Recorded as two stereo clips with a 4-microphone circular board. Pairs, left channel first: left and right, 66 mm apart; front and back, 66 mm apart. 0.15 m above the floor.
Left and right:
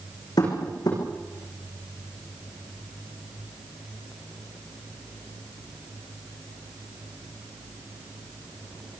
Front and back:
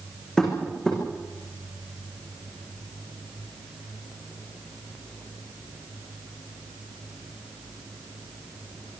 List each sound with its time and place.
0.4 s tapping: 80° left, 10 m